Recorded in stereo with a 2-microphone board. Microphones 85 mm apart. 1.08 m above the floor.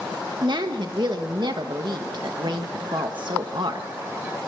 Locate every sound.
0.4 s a woman speaking: 65° right (ahead or behind), 1.4 m